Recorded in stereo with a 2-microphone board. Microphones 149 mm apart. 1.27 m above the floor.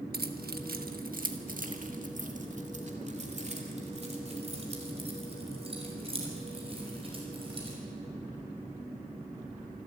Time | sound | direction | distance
0.1 | keys jangling | 80° right | 1.2 m